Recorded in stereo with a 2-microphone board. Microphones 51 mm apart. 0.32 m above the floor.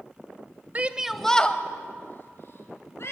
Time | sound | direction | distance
0.8 | a shout | 30° right (ahead or behind) | 1.1 m